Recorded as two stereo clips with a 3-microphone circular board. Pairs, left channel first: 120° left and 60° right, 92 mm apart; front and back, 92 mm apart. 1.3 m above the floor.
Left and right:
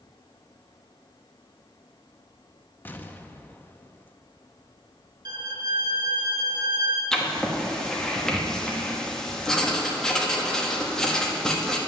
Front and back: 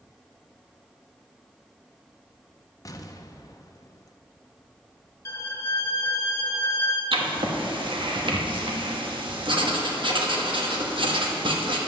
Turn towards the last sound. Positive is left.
turn(degrees=-155)